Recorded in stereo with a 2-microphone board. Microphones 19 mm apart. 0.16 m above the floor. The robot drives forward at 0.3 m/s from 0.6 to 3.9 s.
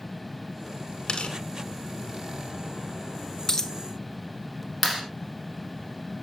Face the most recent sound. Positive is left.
turn(degrees=-10)  # may be behind; listen again after turning